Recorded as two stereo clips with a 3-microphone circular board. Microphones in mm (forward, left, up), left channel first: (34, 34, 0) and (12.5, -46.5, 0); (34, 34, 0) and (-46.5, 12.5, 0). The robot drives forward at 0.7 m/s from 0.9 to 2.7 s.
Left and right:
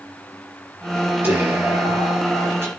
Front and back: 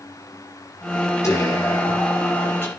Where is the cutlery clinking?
I don't hear cutlery clinking.